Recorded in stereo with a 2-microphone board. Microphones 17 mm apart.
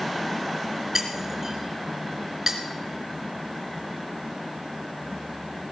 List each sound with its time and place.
0.9 s breaking glass: 30° right (ahead or behind), 2.5 m